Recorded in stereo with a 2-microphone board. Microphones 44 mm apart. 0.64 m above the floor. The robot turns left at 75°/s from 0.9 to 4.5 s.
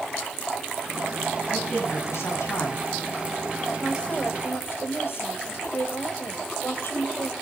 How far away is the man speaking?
About 6 m.